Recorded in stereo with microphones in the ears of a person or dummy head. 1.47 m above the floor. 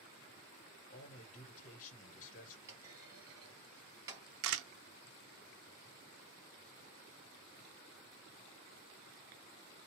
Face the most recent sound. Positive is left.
turn(degrees=-70)  # may be behind; listen again after turning